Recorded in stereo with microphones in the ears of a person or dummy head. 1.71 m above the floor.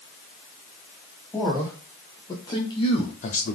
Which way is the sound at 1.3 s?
15° left (ahead or behind).